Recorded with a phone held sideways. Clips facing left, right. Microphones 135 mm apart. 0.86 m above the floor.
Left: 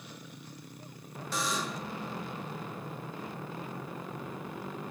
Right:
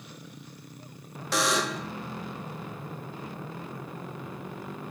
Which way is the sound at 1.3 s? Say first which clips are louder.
Right 7 dB; 75° right (ahead or behind).